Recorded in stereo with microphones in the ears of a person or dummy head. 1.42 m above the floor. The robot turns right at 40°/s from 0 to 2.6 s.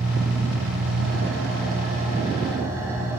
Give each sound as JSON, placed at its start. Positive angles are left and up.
{"t": 0.0, "sound": "an engine running", "azimuth_deg": -125, "distance_m": 4.5}